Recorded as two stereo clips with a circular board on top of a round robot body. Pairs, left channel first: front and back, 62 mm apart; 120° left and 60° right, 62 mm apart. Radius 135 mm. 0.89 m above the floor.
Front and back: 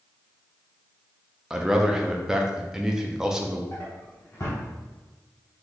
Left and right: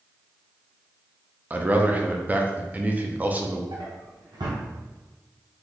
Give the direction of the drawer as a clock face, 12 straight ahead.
2 o'clock.